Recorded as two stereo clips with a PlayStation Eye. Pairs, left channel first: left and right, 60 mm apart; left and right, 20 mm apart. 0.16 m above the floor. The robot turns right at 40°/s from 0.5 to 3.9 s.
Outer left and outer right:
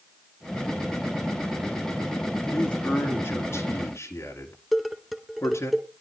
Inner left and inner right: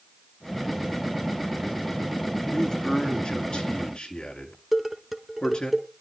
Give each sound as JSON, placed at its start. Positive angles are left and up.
{"t": 2.5, "sound": "a man speaking", "azimuth_deg": 20, "distance_m": 2.5}
{"t": 4.7, "sound": "dishes clattering", "side_deg": 0, "distance_m": 1.2}